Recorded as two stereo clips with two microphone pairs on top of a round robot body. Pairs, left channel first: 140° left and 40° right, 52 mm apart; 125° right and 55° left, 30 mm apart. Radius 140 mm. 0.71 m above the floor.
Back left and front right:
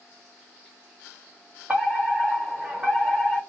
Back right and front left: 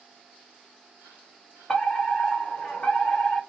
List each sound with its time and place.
1.7 s a fire alarm: 80° right, 2.5 m